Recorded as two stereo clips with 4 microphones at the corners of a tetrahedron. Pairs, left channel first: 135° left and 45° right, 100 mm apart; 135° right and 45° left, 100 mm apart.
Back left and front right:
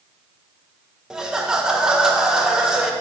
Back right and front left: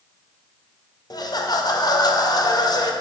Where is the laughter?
125° right, 0.8 m.